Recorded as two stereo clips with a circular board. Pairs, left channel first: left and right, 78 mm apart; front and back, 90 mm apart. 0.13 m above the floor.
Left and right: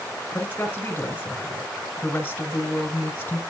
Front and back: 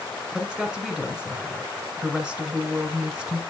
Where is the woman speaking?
115° left, 1.6 m.